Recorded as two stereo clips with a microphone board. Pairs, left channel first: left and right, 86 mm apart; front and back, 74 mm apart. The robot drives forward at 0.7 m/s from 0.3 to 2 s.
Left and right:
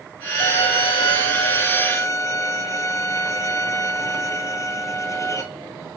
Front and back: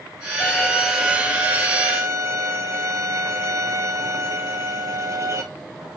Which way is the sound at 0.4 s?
65° left.